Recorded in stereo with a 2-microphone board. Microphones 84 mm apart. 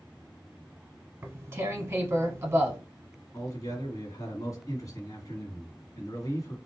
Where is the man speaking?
45° left (ahead or behind), 1.6 m.